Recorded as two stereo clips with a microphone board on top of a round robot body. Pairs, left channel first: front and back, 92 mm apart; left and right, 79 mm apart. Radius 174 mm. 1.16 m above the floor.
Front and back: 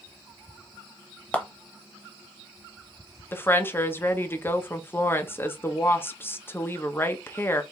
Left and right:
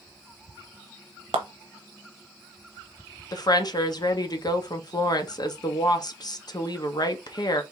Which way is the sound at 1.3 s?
80° right.